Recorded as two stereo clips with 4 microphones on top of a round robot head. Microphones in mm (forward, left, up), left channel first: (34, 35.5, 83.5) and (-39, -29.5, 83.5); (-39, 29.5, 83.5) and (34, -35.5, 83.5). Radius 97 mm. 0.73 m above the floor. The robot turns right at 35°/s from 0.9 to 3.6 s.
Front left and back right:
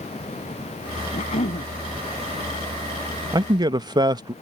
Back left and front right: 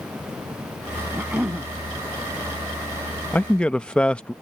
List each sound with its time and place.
1.1 s a cough: 35° left; by 1.7 s 50° left
3.3 s a man speaking: 155° right; by 4.3 s 145° right